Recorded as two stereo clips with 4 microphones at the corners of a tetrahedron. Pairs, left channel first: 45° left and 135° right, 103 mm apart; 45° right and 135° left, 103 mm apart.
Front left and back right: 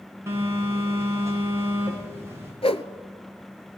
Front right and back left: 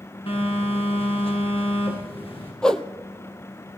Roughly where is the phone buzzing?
Right.